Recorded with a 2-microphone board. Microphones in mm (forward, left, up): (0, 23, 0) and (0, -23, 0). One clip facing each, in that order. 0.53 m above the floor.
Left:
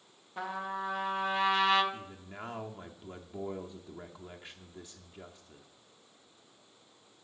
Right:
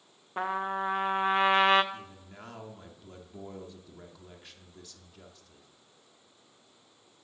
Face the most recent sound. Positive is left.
turn(degrees=20)  # may be behind; listen again after turning